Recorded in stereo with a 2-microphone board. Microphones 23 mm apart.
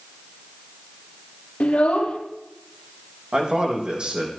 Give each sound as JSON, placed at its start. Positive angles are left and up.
{"t": 1.6, "sound": "a child speaking", "side_deg": 70, "distance_m": 3.0}
{"t": 3.3, "sound": "a man speaking", "side_deg": -45, "distance_m": 5.5}